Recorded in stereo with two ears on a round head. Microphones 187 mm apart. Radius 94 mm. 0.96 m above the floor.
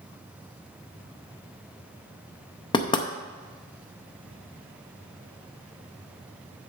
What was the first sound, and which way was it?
Knocking, 20° left (ahead or behind).